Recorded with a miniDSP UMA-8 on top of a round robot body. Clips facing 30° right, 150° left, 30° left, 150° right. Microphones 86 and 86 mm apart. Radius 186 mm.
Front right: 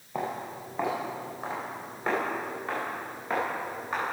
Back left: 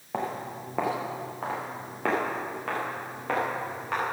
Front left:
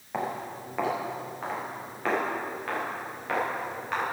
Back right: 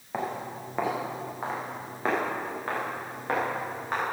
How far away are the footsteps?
About 4 m.